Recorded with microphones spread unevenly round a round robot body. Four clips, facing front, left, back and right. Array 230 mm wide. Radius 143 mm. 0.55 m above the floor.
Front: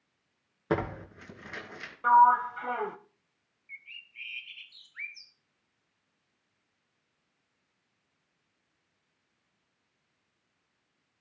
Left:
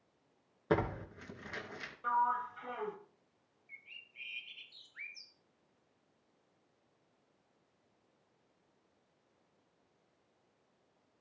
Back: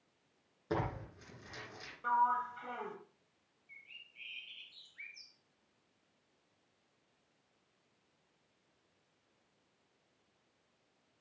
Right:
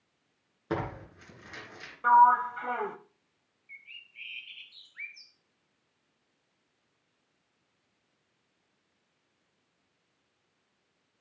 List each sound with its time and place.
0.7 s tearing paper: 15° right, 3 m
2.0 s a sliding door: 50° right, 0.9 m
3.7 s a bird: 40° left, 1.3 m